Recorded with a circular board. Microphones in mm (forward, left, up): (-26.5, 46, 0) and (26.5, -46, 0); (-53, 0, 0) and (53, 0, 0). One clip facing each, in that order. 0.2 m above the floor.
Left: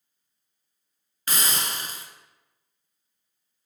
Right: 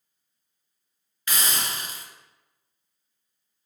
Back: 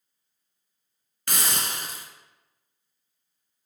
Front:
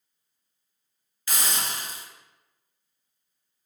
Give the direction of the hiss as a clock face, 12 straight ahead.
6 o'clock.